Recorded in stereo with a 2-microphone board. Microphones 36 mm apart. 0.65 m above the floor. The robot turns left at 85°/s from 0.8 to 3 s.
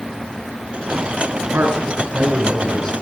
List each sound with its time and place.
1.5 s a man speaking: 90° right, 7.5 m; by 2.9 s 150° left, 7.5 m